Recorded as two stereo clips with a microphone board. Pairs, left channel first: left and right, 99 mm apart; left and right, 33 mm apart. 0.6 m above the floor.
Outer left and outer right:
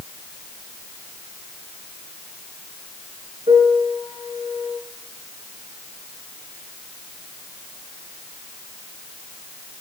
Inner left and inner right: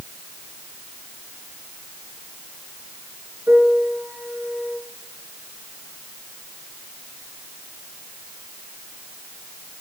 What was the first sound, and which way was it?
A piano, 85° right.